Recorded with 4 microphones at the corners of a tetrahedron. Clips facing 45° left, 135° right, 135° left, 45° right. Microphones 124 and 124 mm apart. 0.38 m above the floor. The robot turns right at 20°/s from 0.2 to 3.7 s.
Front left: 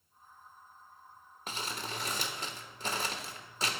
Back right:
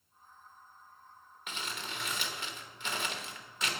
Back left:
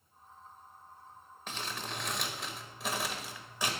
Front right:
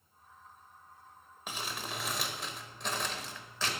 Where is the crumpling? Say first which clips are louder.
Front left 2 dB, even; 25° left, 0.9 m; by 3.7 s 70° left, 0.9 m.